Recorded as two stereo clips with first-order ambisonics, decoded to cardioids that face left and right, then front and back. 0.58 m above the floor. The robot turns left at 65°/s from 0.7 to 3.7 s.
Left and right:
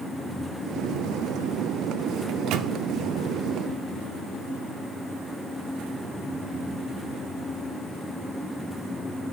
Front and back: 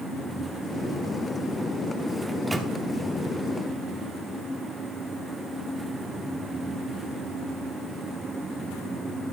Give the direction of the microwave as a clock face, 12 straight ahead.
3 o'clock.